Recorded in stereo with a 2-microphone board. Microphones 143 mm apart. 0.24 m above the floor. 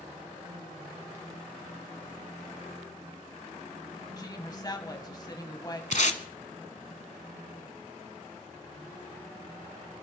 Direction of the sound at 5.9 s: 60° left (ahead or behind).